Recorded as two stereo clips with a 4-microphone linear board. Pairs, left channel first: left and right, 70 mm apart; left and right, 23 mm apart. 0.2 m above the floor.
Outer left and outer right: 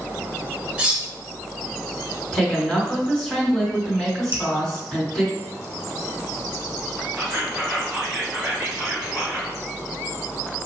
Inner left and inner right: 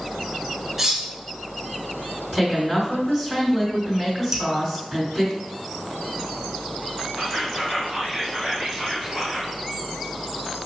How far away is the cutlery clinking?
About 0.7 m.